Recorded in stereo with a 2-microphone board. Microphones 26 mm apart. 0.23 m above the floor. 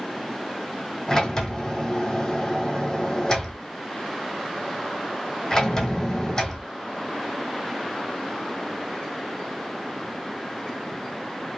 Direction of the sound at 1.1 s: 25° left (ahead or behind).